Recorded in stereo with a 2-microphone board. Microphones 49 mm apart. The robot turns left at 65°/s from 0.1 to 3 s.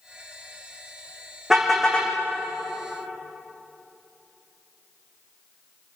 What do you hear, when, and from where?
1.5 s a car horn: 170° right, 5 m; by 2.1 s 145° left, 5 m